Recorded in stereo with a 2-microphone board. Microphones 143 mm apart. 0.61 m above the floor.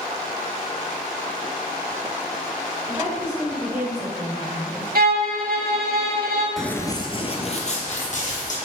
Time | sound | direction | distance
2.9 | a woman speaking | 15° right (ahead or behind) | 2.5 m
5.0 | a violin | 80° right | 1.0 m
6.6 | running footsteps | centre (ahead or behind) | 0.5 m